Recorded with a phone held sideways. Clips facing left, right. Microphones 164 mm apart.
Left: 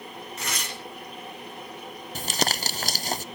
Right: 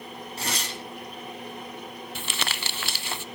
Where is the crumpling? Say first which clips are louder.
Left 8 dB; 40° left (ahead or behind), 0.5 m.